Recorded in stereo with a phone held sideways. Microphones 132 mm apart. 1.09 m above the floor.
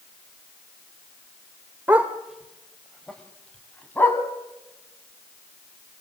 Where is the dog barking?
15° right (ahead or behind), 1.1 m; by 4.2 s 15° left (ahead or behind), 3 m.